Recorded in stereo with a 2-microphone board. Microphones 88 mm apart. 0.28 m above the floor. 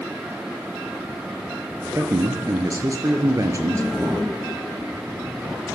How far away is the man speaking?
About 5 m.